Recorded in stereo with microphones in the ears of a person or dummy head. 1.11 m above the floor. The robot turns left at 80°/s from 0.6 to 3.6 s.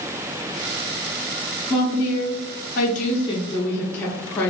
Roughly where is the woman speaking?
Behind.